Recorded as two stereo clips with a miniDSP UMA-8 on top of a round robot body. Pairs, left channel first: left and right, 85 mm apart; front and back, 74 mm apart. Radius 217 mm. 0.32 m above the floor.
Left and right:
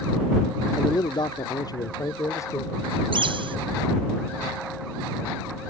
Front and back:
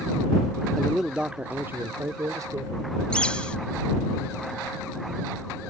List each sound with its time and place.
0.8 s a man speaking: 80° left; by 2.9 s 145° left
3.1 s a bird: 75° right